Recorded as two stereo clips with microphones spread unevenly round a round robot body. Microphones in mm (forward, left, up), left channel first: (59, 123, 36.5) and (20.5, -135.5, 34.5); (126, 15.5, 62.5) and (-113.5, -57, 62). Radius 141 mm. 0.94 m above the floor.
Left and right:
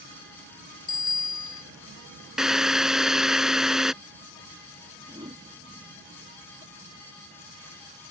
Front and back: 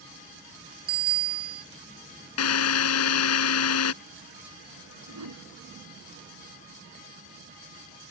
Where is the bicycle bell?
155° left.